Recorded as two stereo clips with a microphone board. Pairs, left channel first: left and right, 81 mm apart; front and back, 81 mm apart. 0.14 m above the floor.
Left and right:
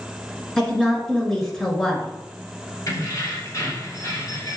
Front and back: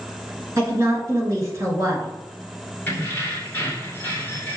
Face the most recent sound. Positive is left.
turn(degrees=65)